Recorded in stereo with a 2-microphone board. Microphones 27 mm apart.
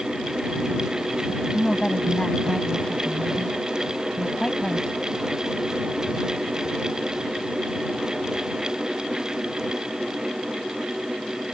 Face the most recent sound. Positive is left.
turn(degrees=30)  # may be behind; listen again after turning